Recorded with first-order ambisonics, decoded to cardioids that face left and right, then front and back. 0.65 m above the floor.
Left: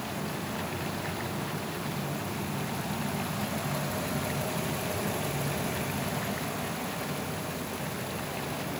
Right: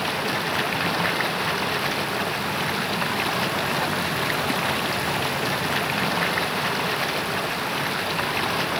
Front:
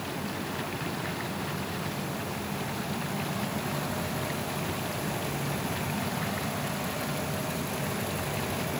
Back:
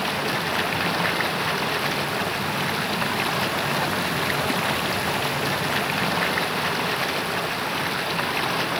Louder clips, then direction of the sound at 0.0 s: Right 11 dB, back 11 dB; 135° right.